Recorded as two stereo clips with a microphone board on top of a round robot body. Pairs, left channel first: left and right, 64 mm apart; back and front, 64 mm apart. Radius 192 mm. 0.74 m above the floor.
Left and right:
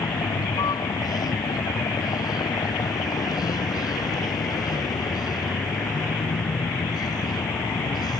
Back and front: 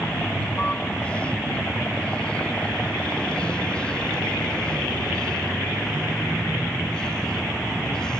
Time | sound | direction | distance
0.0 | a vehicle | 105° left | ?